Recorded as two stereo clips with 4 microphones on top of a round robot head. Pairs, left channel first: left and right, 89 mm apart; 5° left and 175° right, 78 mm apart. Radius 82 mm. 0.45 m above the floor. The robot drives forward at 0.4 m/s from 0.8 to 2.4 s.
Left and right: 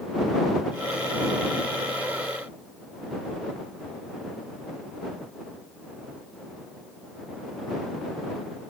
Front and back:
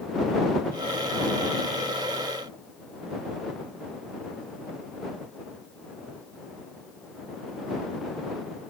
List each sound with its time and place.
Only background noise.